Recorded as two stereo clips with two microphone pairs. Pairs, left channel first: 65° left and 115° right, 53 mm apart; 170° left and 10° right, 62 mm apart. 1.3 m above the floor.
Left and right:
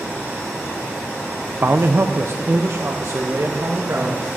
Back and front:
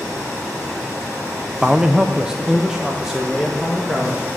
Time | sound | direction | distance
1.6 | a man speaking | 80° right | 0.6 m